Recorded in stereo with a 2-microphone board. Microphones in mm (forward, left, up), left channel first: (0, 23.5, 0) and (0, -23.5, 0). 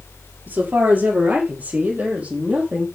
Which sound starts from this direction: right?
A woman speaking, at 0.5 s.